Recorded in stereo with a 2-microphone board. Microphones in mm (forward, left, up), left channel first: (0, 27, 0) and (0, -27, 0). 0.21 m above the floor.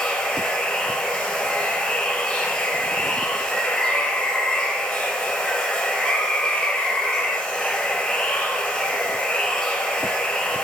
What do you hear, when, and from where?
0.0 s running water: 10° left (ahead or behind), 1.9 m